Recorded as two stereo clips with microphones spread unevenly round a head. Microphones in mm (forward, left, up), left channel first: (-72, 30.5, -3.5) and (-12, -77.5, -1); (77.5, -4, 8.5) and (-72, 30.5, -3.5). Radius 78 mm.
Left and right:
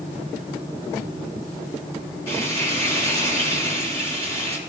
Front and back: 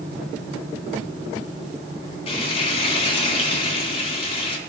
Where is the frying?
45° left, 5 m.